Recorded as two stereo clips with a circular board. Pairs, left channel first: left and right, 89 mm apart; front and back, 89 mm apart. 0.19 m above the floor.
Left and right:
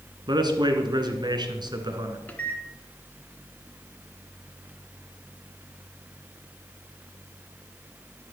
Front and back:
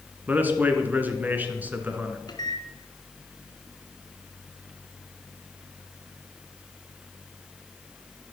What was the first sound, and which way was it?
A man speaking, 115° right.